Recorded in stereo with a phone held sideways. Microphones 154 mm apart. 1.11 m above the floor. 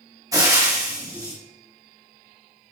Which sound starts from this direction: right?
Frying, at 0.3 s.